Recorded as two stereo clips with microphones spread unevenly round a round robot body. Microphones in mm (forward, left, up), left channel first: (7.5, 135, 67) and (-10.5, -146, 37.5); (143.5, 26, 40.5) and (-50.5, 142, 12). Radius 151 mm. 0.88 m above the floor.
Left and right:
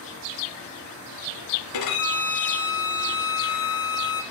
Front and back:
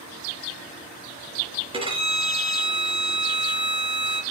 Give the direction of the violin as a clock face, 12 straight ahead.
9 o'clock.